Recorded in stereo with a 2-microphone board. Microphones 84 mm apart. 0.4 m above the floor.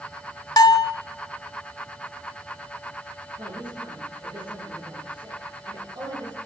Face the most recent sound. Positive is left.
turn(degrees=-65)  # may be behind; listen again after turning